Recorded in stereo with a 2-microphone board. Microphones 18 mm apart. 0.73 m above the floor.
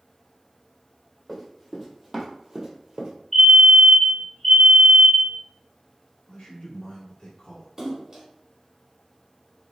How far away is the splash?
About 2.0 m.